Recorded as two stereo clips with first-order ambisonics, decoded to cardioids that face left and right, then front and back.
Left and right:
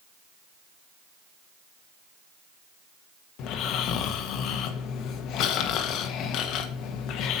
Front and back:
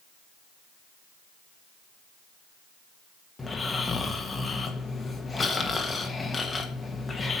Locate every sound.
3.4 s snoring: 75° left, 1.2 m